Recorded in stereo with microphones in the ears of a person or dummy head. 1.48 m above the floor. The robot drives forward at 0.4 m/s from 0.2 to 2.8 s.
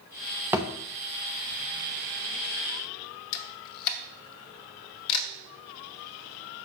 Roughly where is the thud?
Centre.